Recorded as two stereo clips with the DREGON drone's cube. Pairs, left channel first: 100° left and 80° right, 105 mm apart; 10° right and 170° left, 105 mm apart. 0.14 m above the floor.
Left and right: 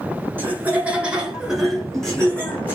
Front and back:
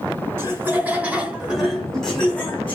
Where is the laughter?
140° right, 1.7 m; by 2.8 s 45° left, 1.6 m.